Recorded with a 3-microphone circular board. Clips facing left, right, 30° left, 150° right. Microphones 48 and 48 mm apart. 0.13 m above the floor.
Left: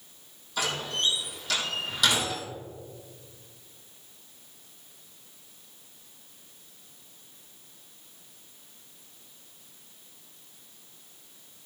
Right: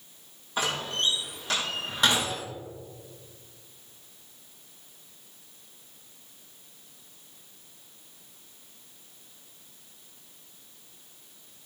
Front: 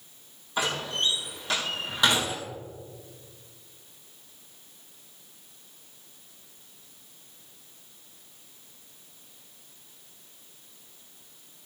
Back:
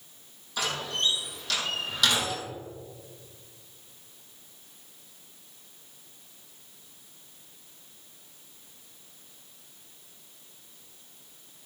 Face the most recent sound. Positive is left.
turn(degrees=-35)